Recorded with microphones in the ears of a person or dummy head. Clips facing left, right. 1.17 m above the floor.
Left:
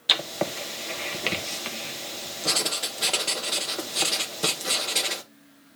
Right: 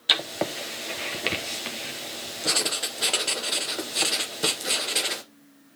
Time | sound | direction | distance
0.1 | writing | 5° right (ahead or behind) | 0.8 m